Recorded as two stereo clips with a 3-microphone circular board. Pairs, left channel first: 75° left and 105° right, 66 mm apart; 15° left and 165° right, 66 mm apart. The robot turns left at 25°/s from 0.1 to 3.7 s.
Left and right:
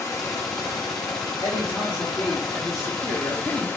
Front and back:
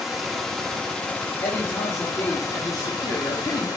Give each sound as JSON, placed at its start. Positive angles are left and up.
{"t": 0.0, "sound": "running water", "azimuth_deg": 110, "distance_m": 1.0}
{"t": 1.4, "sound": "a woman speaking", "azimuth_deg": 60, "distance_m": 1.1}